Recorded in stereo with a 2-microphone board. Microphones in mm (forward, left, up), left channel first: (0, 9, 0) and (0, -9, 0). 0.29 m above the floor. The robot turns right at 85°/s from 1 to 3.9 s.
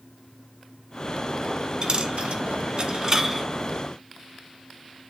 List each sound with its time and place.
1.8 s a dropped coin: 40° right (ahead or behind), 1.0 m; by 3.5 s centre (ahead or behind), 1.0 m